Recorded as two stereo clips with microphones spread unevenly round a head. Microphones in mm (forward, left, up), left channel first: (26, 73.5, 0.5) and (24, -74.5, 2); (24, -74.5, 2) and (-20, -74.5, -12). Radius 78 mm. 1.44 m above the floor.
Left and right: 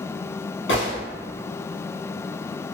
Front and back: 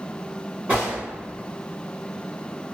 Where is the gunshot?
100° left, 1.0 m.